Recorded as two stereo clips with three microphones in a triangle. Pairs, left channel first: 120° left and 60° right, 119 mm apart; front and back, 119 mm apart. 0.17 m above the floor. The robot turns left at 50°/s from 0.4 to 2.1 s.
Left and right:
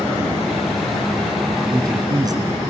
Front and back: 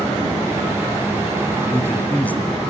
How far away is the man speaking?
About 1.5 m.